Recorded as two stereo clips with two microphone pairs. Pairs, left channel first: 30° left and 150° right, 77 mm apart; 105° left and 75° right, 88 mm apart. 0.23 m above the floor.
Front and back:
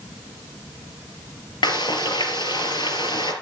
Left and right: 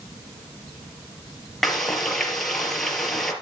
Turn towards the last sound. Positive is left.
turn(degrees=15)